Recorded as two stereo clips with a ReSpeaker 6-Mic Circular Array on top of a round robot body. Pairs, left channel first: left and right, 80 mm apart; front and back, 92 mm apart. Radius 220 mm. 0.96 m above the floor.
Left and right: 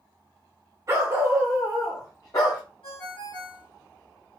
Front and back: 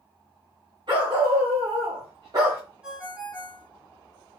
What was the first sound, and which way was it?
A dog barking, 140° right.